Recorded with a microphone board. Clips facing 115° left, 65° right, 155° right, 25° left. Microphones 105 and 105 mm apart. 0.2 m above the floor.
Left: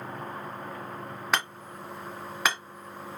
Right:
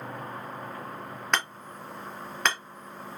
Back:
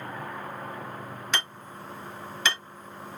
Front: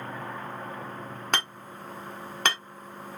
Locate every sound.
1.3 s hammering: 30° left, 1.5 m